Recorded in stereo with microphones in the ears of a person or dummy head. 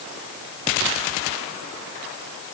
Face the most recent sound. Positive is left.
No sound to turn to.